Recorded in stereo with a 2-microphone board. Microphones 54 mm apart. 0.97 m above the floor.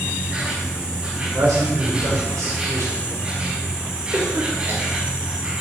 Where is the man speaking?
80° right, 4.5 m.